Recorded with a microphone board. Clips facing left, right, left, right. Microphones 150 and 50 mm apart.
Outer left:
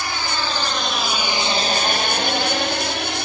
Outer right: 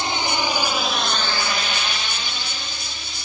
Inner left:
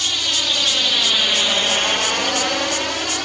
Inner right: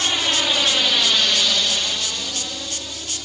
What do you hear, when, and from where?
0.0 s a drone: 25° right (ahead or behind); by 3.3 s 75° left (ahead or behind)